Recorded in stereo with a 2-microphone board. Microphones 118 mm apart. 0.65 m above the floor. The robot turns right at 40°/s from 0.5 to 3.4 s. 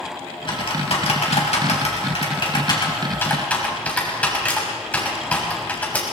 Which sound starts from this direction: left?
Typing on a keyboard, at 0.5 s.